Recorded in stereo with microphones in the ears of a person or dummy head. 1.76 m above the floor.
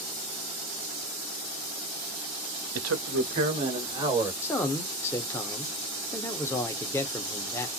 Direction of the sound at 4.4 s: 15° left (ahead or behind).